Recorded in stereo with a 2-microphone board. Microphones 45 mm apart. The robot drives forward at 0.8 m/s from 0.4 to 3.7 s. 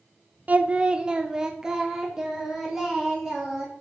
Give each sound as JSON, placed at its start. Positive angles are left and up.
{"t": 0.5, "sound": "singing", "side_deg": -35, "distance_m": 0.5}